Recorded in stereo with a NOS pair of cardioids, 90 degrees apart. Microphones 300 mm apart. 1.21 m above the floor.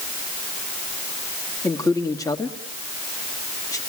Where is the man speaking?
10° left, 2 m.